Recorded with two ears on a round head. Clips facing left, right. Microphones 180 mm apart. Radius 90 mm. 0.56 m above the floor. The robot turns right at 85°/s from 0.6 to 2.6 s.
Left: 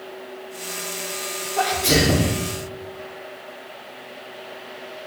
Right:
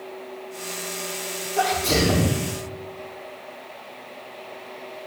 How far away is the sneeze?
About 1.2 m.